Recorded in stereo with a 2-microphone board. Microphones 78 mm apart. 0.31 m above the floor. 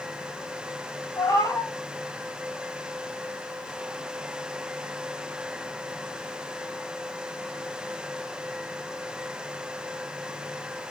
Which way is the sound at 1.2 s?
50° left (ahead or behind).